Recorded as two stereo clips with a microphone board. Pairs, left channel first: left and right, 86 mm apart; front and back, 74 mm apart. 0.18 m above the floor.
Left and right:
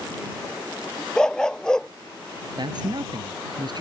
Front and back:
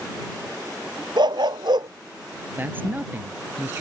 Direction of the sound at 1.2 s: 175° left.